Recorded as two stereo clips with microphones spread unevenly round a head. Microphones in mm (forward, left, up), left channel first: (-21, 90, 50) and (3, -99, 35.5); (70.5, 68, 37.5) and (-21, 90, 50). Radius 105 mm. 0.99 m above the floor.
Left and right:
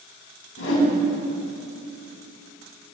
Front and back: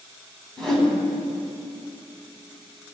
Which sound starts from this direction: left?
A whoosh, at 0.6 s.